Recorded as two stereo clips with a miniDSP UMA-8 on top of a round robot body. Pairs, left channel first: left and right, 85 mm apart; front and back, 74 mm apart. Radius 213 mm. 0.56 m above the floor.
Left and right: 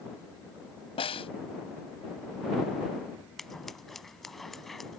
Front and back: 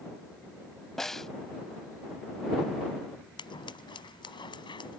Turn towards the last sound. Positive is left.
turn(degrees=0)